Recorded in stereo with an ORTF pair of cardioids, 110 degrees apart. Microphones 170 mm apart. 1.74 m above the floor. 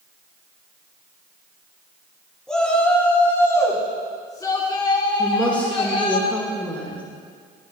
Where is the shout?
5° left, 3 m; by 6.2 s 35° left, 5 m.